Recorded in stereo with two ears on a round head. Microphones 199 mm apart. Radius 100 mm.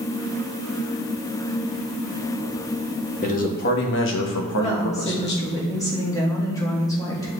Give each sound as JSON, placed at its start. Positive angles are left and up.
{"t": 3.2, "sound": "a man speaking", "side_deg": 35, "distance_m": 1.3}
{"t": 4.5, "sound": "a woman speaking", "side_deg": 15, "distance_m": 1.7}